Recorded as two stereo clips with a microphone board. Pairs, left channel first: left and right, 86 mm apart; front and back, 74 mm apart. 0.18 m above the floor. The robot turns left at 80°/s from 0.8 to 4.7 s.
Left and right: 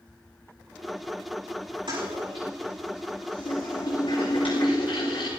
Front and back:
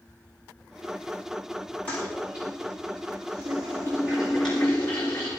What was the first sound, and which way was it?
A toilet flushing, 70° right.